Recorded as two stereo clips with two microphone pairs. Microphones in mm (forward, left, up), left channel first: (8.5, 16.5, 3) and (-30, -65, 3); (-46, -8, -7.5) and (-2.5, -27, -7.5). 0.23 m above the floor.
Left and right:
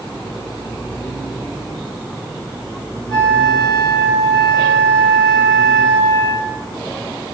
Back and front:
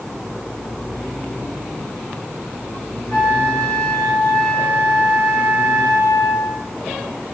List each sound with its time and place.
3.1 s a flute: 150° left, 2.0 m